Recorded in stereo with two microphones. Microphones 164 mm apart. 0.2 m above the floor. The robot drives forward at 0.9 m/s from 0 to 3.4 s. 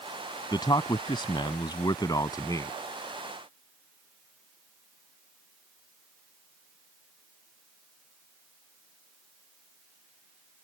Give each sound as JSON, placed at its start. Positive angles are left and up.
{"t": 0.5, "sound": "a man speaking", "side_deg": 25}